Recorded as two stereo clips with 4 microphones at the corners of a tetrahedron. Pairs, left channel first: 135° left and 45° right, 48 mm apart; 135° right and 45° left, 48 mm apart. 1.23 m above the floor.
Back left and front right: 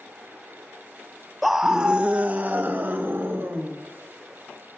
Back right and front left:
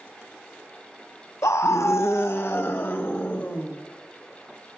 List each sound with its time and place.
1.4 s a scream: 135° right, 0.7 m; by 3.7 s 90° right, 2 m